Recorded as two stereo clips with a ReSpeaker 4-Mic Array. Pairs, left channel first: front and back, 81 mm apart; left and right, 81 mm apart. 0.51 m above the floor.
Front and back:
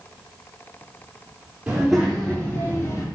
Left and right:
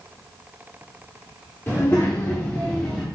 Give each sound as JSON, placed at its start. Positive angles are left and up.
{"t": 1.7, "sound": "a child speaking", "azimuth_deg": 120, "distance_m": 0.8}